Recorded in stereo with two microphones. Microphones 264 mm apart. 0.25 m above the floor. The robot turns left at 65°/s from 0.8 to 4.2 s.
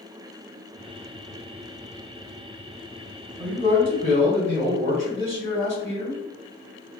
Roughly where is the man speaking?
Right.